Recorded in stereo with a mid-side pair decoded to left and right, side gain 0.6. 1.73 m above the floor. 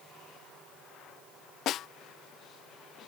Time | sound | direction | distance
1.7 | a snare drum | 55° left | ?